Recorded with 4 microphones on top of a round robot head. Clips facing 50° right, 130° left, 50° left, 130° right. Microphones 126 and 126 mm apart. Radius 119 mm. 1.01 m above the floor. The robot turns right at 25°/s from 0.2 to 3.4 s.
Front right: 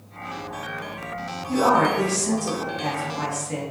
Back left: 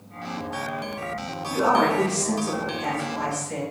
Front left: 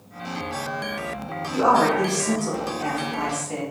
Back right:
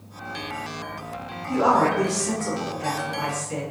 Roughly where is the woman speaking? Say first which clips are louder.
Front right 1 dB, front left 1 dB; ahead right.